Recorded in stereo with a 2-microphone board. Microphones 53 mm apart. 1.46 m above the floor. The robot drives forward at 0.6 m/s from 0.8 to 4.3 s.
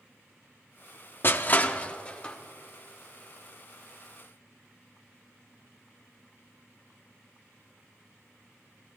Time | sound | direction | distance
1.2 | crushing | 45° left (ahead or behind) | 0.5 m